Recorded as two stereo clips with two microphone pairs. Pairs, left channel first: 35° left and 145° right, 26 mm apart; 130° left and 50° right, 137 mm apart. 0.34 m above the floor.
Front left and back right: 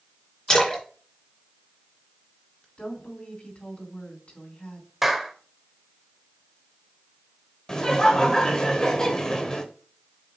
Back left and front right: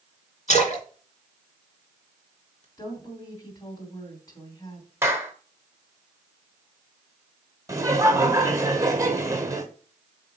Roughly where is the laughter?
Ahead.